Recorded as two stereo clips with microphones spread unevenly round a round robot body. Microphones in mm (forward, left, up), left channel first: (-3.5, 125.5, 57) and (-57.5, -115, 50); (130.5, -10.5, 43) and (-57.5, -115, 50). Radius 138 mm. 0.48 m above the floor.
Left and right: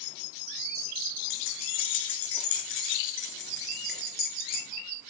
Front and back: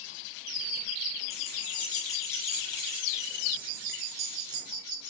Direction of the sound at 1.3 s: 95° left.